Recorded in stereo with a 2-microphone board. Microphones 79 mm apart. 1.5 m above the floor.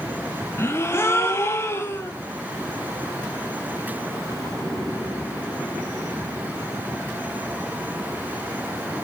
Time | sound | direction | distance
0.6 | a gasp | 35° left (ahead or behind) | 1.2 m